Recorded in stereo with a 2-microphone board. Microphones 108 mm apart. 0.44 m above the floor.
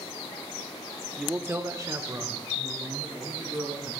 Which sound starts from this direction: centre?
A man speaking, at 1.2 s.